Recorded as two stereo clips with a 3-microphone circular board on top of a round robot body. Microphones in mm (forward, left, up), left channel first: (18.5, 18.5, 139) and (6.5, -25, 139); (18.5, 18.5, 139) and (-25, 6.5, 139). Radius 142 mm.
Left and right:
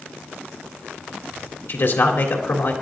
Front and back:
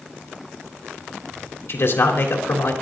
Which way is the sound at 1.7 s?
45° left.